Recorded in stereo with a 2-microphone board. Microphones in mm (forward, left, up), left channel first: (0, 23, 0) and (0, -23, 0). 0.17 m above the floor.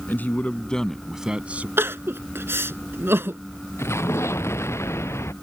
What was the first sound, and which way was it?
A man speaking, 45° left (ahead or behind).